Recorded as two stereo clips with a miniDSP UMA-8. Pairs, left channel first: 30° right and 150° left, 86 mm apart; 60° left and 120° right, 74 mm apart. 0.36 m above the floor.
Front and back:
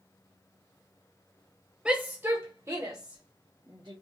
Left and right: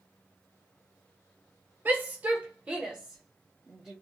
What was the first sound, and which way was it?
A shout, 145° right.